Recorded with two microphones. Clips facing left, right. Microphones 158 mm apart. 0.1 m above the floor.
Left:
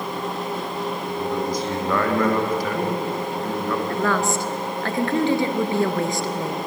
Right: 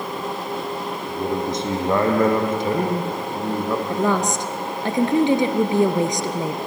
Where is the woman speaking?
20° right (ahead or behind), 1.6 m.